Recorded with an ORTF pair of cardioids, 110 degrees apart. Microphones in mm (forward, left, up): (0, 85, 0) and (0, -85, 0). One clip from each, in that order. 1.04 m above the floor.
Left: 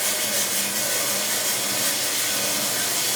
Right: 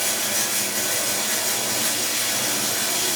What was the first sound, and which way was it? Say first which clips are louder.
Running water: right 1 dB; 10° right.